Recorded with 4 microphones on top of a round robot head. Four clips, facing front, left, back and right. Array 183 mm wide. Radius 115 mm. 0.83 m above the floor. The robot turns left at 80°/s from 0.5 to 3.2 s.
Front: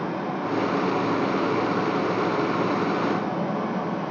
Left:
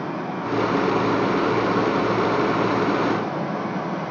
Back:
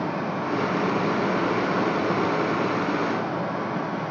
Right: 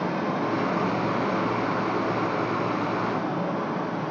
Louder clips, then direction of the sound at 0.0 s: Right 1 dB, even; 90° right.